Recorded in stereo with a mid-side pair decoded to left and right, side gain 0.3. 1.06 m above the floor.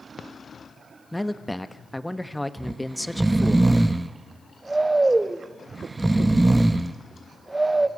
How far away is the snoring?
About 0.8 m.